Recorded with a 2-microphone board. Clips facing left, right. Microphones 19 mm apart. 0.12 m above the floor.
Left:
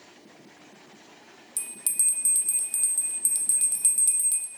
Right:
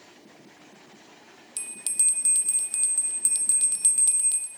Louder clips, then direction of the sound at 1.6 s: Right 1 dB; 25° right (ahead or behind).